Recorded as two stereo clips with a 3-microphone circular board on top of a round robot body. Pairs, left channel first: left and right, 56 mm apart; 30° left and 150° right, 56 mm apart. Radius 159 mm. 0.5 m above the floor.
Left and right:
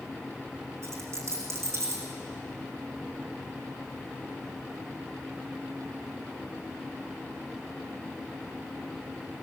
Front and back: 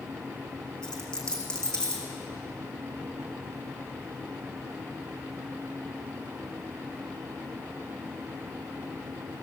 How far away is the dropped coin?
About 3 m.